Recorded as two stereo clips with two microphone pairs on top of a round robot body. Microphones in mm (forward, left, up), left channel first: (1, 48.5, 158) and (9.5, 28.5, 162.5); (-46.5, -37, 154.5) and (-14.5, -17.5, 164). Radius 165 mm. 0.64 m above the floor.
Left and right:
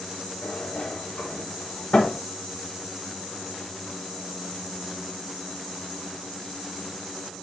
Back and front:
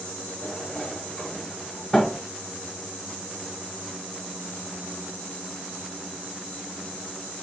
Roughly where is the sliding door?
Behind left.